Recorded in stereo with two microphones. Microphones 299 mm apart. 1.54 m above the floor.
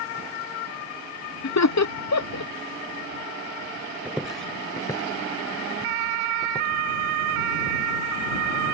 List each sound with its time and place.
1.4 s laughter: 65° left (ahead or behind)
4.0 s footsteps: 5° right (ahead or behind); by 6.7 s 20° left (ahead or behind)